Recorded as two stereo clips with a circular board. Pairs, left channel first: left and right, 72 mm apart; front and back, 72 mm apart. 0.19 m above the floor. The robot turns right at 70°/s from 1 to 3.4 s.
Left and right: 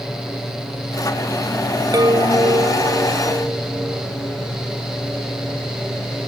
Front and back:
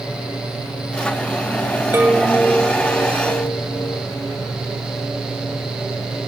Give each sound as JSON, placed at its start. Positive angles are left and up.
{"t": 1.9, "sound": "a chime", "azimuth_deg": -120}